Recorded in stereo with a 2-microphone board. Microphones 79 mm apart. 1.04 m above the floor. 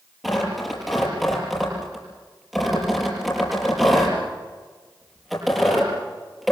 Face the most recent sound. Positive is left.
turn(degrees=0)  # may be behind; listen again after turning